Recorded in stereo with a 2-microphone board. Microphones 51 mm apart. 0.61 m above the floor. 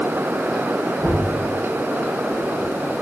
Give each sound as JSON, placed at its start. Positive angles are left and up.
{"t": 1.0, "sound": "knocking", "side_deg": -60, "distance_m": 6.5}